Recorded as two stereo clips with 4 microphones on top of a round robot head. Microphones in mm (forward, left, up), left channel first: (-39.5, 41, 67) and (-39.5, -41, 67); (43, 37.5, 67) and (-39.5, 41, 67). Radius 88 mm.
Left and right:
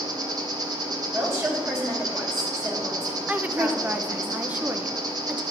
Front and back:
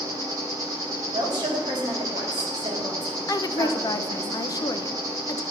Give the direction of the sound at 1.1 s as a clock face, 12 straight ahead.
5 o'clock.